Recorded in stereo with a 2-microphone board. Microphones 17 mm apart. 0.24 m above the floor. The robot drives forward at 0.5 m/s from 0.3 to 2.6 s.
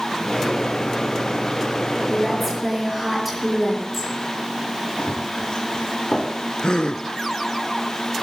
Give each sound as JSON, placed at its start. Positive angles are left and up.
{"t": 2.1, "sound": "a woman speaking", "side_deg": -10, "distance_m": 5.5}
{"t": 5.0, "sound": "running footsteps", "side_deg": 70, "distance_m": 2.5}
{"t": 6.6, "sound": "a gasp", "side_deg": 60, "distance_m": 0.6}